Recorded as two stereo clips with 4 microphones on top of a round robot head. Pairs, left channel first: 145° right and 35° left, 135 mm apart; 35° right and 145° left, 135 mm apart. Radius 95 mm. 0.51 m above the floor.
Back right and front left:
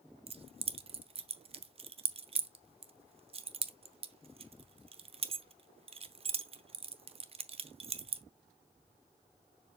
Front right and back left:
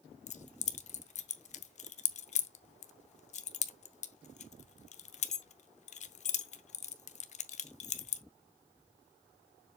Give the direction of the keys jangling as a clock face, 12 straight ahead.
12 o'clock.